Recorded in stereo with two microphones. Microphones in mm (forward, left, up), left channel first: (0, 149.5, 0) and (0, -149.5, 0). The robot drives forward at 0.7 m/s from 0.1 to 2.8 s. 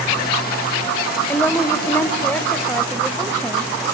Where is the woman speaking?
5° left (ahead or behind), 0.9 m.